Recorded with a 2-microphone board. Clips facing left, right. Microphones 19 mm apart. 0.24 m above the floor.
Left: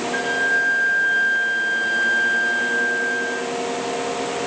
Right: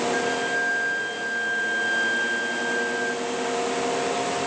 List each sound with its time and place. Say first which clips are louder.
0.1 s a flute: left 4 dB; 20° left (ahead or behind), 2.5 m